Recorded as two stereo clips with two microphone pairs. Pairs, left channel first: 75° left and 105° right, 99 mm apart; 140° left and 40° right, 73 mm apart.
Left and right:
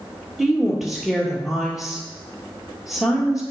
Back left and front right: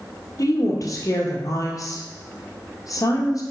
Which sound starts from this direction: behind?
A woman speaking, at 0.4 s.